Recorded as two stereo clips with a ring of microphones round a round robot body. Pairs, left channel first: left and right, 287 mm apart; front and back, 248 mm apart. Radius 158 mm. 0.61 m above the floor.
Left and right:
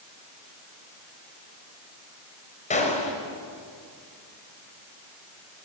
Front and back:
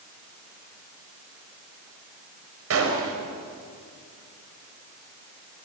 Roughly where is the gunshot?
Behind left.